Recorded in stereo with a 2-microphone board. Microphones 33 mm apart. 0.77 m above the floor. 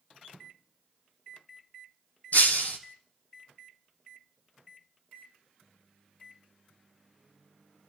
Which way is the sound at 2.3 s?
60° left (ahead or behind).